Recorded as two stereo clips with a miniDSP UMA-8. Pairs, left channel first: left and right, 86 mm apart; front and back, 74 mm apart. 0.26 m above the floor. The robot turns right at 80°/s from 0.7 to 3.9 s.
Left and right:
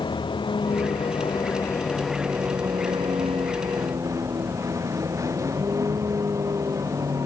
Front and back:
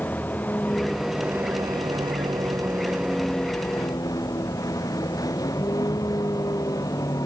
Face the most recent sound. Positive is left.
turn(degrees=-35)